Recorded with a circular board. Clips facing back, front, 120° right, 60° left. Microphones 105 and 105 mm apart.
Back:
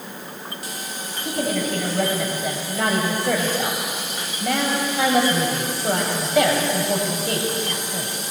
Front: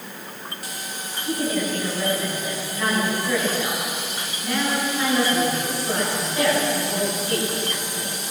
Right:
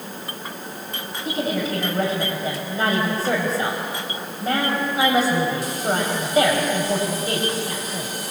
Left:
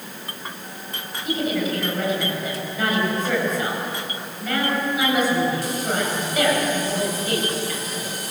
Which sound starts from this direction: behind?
A woman speaking, at 1.2 s.